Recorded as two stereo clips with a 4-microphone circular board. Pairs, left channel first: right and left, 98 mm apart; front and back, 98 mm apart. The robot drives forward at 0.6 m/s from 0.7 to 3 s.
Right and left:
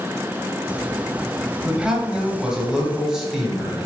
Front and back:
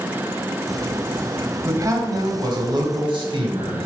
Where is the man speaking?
165° left, 1.1 m; by 3.9 s 175° left, 1.6 m.